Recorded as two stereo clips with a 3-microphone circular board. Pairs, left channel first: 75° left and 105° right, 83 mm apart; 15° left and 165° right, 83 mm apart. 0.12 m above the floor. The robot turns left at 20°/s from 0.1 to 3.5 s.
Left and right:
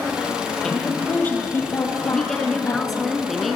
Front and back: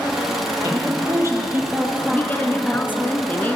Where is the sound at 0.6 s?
155° left, 3.5 m; by 3.0 s 105° left, 3.5 m.